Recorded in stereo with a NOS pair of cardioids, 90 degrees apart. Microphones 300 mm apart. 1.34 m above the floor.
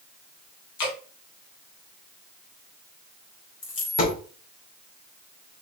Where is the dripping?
70° left, 1.8 m.